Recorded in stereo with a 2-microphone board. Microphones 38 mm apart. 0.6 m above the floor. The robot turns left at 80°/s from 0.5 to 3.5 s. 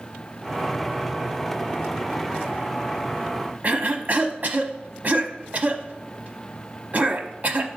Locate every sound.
3.6 s a cough: 40° right (ahead or behind), 0.8 m